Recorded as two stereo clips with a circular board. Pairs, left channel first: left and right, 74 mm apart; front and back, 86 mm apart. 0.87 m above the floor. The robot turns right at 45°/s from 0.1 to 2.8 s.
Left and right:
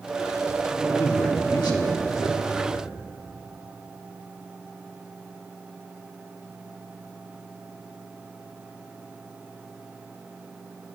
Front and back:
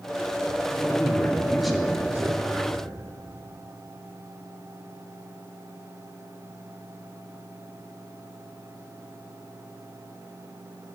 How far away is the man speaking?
About 1.6 m.